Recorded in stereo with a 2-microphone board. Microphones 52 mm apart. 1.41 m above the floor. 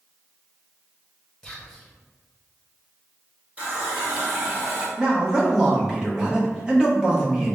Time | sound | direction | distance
1.4 | whispering | 10° left (ahead or behind) | 1.3 m
3.6 | a running tap | 30° right (ahead or behind) | 0.8 m
5.0 | a man speaking | 15° right (ahead or behind) | 0.9 m